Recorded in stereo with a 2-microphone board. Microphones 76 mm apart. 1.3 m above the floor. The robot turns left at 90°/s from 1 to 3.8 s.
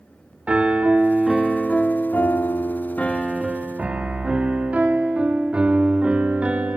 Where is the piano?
15° right (ahead or behind), 0.9 m.